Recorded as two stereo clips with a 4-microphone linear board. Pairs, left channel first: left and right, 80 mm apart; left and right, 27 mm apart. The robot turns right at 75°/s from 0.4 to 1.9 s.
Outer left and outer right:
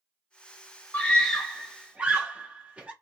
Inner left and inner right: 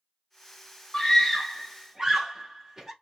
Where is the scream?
20° left (ahead or behind), 0.6 m; by 2.9 s 15° right (ahead or behind), 0.6 m.